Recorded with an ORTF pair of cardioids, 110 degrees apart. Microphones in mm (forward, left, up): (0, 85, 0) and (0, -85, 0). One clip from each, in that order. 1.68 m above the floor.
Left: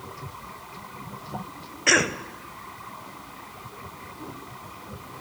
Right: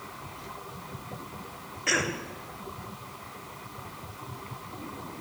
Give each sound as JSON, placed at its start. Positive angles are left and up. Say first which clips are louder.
{"t": 1.9, "sound": "a cough", "louder": "left 7 dB", "azimuth_deg": 40, "distance_m": 1.6}